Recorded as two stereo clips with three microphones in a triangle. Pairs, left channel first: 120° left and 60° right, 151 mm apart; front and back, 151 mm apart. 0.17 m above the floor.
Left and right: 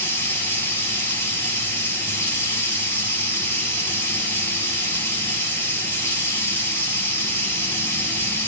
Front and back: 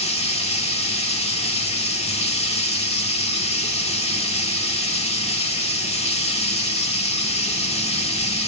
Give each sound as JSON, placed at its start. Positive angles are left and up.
{"t": 0.0, "sound": "running water", "azimuth_deg": 45, "distance_m": 3.0}